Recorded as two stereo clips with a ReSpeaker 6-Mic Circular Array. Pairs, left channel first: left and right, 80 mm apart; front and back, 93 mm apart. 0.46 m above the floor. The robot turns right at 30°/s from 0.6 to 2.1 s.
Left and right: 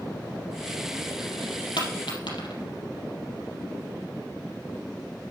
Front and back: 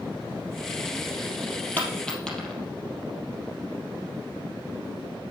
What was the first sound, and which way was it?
A dropped coin, 70° left.